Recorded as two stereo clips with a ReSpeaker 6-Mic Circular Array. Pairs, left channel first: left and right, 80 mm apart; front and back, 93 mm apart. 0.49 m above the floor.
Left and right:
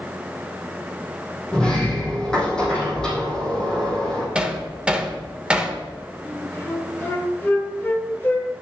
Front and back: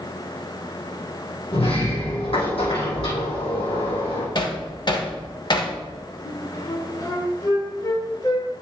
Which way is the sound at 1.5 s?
10° left.